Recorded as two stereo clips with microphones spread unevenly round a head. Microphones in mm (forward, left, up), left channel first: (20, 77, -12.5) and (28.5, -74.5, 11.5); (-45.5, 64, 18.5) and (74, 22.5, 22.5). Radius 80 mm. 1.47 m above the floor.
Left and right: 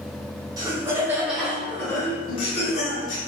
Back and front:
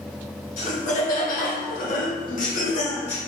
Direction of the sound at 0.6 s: 160° right.